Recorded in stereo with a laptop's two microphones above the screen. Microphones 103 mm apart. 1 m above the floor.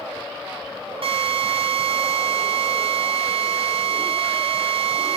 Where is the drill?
60° right (ahead or behind), 4 m.